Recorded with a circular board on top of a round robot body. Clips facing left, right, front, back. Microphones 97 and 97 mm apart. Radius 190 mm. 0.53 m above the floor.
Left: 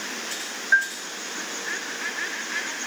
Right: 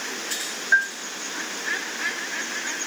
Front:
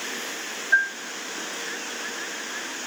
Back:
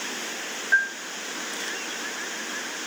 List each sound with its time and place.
0.7 s a bell: 160° right, 2.5 m